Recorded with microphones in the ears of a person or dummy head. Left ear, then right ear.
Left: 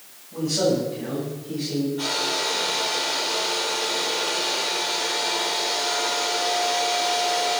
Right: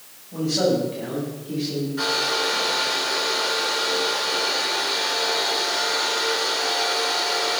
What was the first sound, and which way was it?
A man speaking, 25° right (ahead or behind).